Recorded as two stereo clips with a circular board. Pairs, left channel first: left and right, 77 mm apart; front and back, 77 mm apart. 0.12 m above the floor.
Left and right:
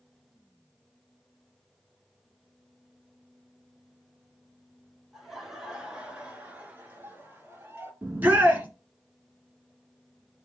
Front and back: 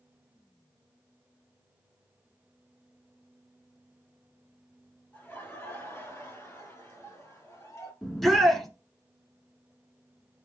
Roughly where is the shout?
Right.